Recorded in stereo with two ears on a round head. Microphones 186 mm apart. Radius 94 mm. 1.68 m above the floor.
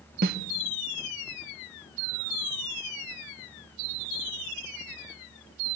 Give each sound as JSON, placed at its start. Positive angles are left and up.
{"t": 0.2, "sound": "a snare drum", "side_deg": -40, "distance_m": 1.3}